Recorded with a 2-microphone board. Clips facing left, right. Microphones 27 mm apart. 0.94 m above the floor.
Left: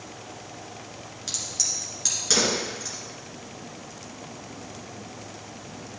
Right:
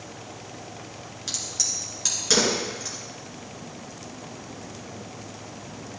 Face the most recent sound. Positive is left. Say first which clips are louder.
# right 1 dB
turn(degrees=-5)  # may be behind; listen again after turning